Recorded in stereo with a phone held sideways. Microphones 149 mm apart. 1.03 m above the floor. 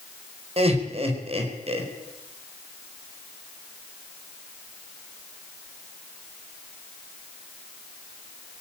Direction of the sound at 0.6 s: 40° right (ahead or behind).